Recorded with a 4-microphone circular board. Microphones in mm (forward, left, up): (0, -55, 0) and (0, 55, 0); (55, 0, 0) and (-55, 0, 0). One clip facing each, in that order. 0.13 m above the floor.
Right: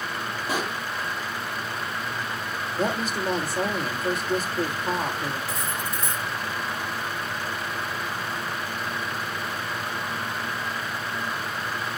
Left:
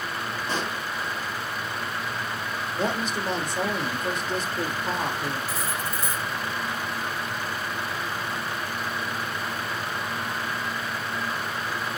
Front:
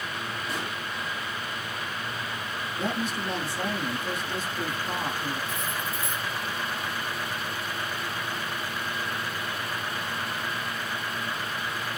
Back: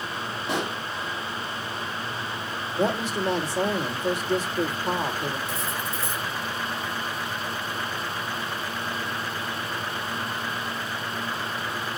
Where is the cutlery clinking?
175° left, 4.5 m.